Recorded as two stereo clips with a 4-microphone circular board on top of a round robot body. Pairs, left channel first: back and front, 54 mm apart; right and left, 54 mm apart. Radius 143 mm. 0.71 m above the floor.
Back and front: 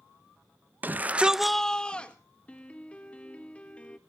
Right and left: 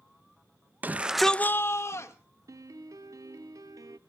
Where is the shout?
45° left, 0.8 m; by 2.1 s 115° right, 1.3 m.